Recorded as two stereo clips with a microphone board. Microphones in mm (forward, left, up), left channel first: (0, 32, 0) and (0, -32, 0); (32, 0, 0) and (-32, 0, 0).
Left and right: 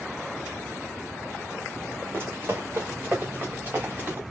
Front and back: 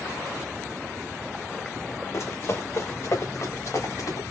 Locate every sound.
2.1 s running footsteps: 40° right, 1.8 m; by 4.2 s 30° right, 3.5 m